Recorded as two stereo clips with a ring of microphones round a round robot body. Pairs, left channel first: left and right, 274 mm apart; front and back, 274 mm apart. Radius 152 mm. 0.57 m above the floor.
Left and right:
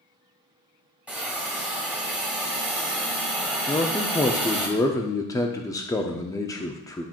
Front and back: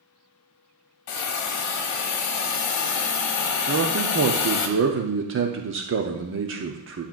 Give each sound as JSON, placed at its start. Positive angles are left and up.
{"t": 1.1, "sound": "a hiss", "azimuth_deg": -5, "distance_m": 1.1}
{"t": 3.7, "sound": "a man speaking", "azimuth_deg": 165, "distance_m": 0.8}